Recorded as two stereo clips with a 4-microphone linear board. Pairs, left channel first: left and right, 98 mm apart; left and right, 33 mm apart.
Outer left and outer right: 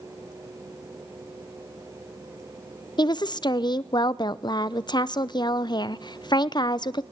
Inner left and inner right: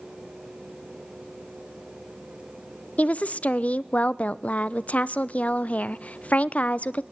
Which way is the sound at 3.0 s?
50° left (ahead or behind).